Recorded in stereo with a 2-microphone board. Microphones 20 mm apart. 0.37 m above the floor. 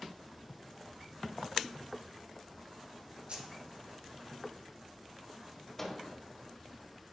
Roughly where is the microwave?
Centre.